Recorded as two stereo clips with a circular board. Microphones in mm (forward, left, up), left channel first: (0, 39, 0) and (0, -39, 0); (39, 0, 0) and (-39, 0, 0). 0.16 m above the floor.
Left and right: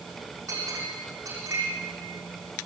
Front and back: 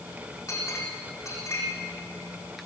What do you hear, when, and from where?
0.5 s a clink: 45° right, 7.5 m